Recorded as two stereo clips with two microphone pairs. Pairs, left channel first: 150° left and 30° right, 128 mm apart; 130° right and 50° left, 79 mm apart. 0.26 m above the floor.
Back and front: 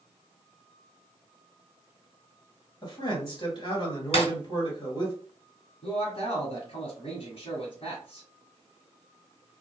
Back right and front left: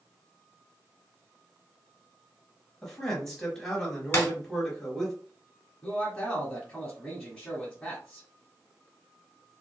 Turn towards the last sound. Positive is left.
turn(degrees=155)